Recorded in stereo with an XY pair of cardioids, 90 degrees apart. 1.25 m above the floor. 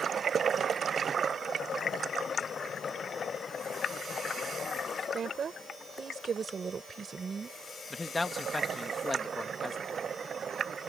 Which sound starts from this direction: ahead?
A man speaking, at 7.9 s.